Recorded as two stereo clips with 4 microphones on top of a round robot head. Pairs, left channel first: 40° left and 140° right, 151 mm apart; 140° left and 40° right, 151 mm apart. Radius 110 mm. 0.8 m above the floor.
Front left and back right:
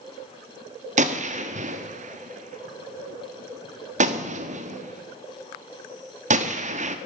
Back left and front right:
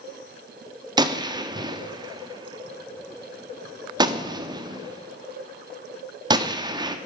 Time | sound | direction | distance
1.0 | a gunshot | 100° right | 1.3 m